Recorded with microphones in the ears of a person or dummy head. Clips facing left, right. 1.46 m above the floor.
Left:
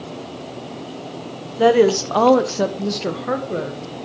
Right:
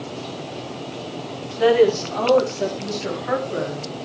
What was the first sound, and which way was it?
A woman speaking, 50° left (ahead or behind).